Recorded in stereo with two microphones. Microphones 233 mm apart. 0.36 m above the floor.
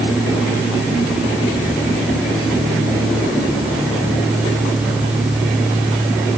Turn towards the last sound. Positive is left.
No sound to turn to.